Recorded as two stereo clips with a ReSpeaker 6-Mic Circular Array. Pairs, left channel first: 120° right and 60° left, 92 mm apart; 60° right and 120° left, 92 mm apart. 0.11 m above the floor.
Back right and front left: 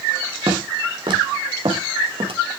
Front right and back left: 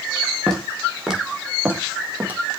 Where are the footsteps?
25° left, 5.5 m; by 2.4 s 50° left, 7 m.